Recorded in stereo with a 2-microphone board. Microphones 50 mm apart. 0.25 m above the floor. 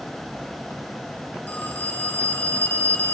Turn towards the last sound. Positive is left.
turn(degrees=35)  # may be behind; listen again after turning